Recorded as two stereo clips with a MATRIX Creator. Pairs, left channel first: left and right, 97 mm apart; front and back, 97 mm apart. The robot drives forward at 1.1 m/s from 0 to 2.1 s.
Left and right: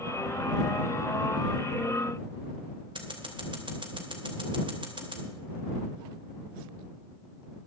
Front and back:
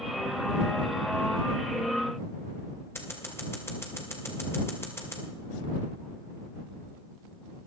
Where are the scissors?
65° right, 2.5 m.